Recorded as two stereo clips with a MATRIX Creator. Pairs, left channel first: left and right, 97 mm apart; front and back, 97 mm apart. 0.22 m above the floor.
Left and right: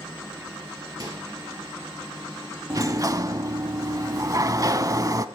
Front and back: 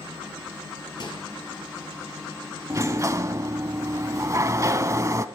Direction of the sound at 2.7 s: 130° right.